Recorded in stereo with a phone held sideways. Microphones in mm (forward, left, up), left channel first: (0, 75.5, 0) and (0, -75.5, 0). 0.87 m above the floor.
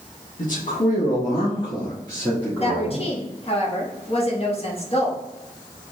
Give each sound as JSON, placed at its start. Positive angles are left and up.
{"t": 0.4, "sound": "a man speaking", "side_deg": 65, "distance_m": 1.5}
{"t": 2.6, "sound": "a woman speaking", "side_deg": 40, "distance_m": 1.4}